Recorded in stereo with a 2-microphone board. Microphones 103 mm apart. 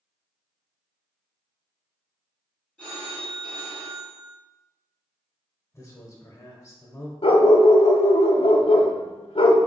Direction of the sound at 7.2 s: 65° left (ahead or behind).